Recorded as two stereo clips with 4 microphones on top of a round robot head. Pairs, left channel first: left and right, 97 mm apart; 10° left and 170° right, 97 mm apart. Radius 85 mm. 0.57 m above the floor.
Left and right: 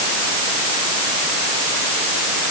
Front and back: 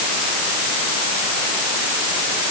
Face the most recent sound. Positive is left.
No sound to turn to.